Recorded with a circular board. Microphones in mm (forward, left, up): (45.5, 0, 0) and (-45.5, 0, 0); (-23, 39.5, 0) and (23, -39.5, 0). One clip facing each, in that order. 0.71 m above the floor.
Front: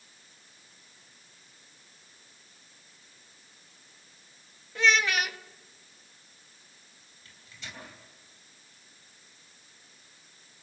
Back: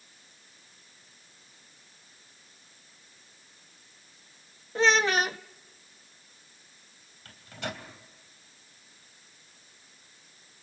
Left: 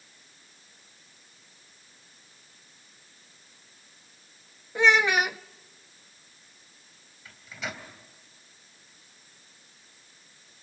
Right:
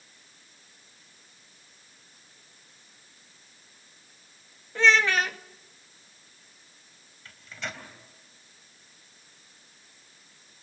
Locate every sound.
4.8 s a child speaking: 175° right, 0.6 m
7.2 s a microwave: 155° right, 3 m